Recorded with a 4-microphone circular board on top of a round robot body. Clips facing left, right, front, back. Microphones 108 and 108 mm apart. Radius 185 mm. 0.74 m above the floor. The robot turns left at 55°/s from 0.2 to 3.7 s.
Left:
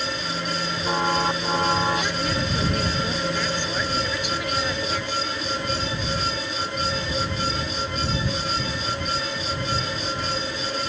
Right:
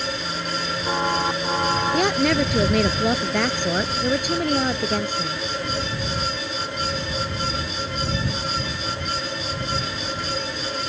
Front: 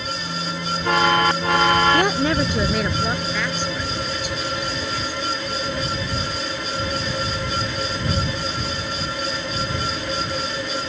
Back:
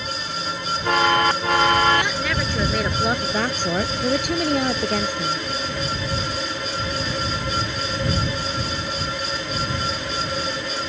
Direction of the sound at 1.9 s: 45° right.